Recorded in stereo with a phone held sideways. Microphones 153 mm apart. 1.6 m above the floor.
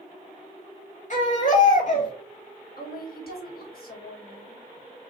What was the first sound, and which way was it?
A baby crying, 55° left (ahead or behind).